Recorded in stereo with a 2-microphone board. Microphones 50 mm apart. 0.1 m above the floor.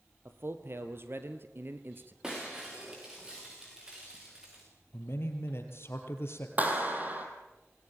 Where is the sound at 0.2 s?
55° right (ahead or behind), 2.5 m; by 2.1 s 45° right (ahead or behind), 1.5 m.